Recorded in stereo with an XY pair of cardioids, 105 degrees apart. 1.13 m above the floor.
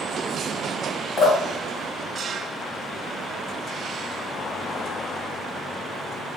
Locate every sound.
1.2 s dripping: 55° left, 1.5 m